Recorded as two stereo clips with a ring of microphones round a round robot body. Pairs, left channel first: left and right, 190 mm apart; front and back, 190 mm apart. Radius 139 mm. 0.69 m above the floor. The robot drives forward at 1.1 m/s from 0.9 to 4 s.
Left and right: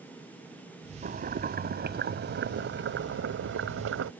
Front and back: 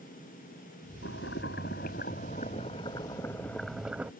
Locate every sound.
1.0 s boiling: 50° right; by 4.1 s 95° right